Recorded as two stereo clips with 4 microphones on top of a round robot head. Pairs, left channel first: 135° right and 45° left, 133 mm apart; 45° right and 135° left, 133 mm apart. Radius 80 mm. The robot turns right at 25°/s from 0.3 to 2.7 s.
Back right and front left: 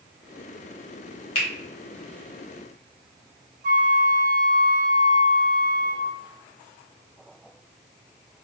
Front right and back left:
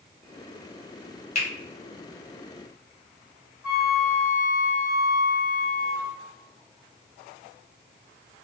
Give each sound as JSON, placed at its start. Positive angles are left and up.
{"t": 1.4, "sound": "a finger snap", "azimuth_deg": -90, "distance_m": 1.6}
{"t": 3.6, "sound": "a flute", "azimuth_deg": 55, "distance_m": 1.2}